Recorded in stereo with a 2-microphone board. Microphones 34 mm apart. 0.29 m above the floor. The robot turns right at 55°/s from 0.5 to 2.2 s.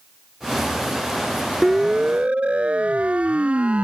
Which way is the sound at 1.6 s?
5° right (ahead or behind).